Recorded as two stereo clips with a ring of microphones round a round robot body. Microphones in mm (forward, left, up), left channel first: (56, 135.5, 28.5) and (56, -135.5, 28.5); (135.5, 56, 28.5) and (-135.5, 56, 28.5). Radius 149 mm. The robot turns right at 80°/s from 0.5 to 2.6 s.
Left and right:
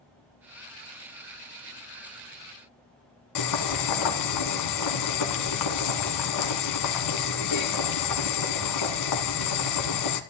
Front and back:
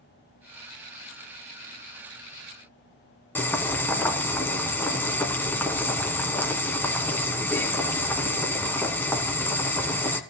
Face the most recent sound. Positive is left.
turn(degrees=80)